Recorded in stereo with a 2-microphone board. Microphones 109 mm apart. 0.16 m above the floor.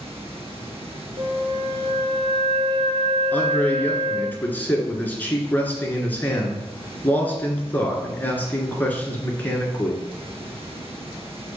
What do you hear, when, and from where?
0.0 s running water: 60° right (ahead or behind), 2 m
1.2 s a flute: 50° right (ahead or behind), 0.8 m
3.3 s a man speaking: 15° left (ahead or behind), 1.8 m